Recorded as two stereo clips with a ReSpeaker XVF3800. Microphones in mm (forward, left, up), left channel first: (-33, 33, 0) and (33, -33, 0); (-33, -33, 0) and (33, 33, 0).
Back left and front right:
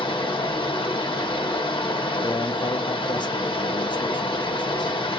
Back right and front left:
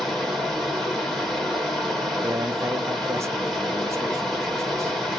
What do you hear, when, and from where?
0.0 s running water: 140° left, 1.2 m
2.2 s a man speaking: 105° left, 0.6 m